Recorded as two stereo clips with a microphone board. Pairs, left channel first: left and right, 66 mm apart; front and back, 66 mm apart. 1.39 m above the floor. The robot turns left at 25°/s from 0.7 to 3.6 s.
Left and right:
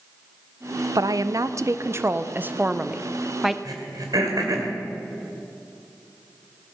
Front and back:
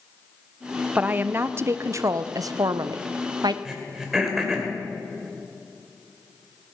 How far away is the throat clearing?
About 2.5 m.